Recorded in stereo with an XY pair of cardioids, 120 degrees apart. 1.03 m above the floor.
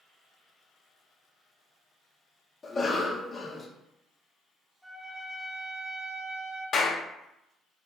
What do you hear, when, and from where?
2.6 s a cough: 25° left, 0.6 m
4.8 s a trumpet: 5° right, 1.2 m
6.7 s a clap: 45° left, 0.5 m